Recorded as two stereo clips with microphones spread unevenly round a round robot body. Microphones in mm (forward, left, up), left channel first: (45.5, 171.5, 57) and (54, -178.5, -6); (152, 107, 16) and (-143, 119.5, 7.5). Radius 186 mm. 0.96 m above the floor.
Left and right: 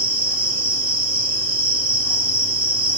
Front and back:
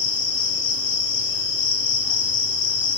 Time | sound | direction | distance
0.0 | an insect | 10° right | 2 m